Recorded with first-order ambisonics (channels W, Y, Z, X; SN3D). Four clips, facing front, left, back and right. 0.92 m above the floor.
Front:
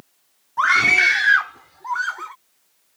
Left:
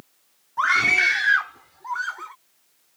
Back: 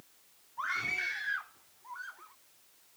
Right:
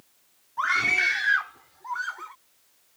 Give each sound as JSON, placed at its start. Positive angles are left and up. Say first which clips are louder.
{"t": 0.6, "sound": "a scream", "louder": "left 4 dB, front 19 dB", "azimuth_deg": 20}